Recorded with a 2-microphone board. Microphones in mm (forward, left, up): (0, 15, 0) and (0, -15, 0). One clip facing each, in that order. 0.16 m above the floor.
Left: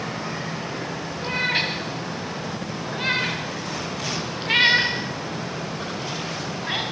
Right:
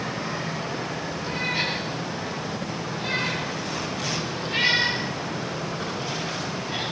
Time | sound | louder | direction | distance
1.2 | a cat meowing | left 4 dB | 60° left (ahead or behind) | 8 m